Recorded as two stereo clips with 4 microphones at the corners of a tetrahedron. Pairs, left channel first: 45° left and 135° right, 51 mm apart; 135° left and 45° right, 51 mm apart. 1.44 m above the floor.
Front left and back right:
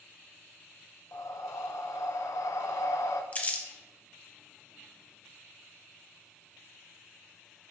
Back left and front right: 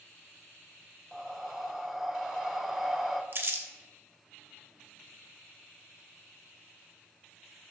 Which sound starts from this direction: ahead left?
Breathing, at 1.1 s.